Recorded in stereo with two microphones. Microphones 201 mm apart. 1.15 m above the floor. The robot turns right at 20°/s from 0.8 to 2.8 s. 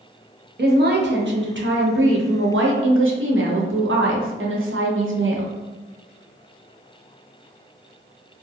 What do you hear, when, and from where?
0.6 s a woman speaking: 125° right, 0.6 m; by 5.5 s 85° right, 0.6 m